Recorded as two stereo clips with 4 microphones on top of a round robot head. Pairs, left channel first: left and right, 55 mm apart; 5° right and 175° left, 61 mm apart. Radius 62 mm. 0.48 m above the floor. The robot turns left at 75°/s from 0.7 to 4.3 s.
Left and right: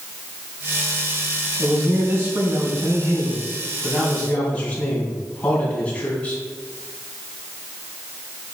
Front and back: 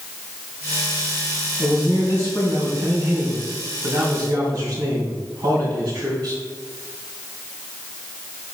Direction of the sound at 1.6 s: Straight ahead.